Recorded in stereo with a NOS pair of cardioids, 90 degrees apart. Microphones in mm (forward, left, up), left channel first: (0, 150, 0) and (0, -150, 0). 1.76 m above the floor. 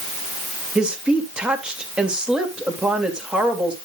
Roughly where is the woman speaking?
Ahead.